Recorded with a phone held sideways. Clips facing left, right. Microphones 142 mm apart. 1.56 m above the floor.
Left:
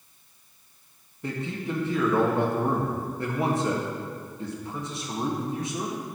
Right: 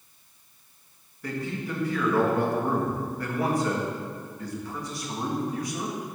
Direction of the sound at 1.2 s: 25° left (ahead or behind).